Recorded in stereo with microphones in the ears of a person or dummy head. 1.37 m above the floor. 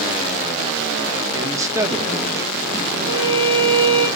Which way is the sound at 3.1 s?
65° right (ahead or behind).